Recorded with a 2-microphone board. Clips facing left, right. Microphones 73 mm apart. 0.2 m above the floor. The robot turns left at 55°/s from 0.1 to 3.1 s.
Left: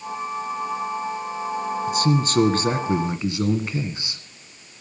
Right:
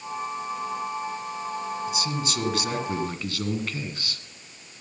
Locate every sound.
1.9 s a man speaking: 95° left, 1.7 m; by 4.2 s 30° left, 1.7 m